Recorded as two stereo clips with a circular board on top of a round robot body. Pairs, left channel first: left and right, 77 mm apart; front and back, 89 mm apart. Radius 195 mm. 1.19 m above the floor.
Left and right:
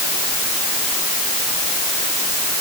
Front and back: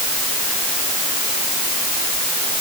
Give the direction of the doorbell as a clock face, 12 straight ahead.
No doorbell in this recording.